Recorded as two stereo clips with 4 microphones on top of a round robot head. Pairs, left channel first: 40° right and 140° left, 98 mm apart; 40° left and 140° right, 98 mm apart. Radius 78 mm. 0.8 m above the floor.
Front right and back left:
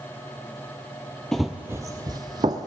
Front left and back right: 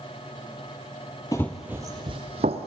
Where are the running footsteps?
40° left, 0.8 m; by 2.7 s 165° right, 1.4 m.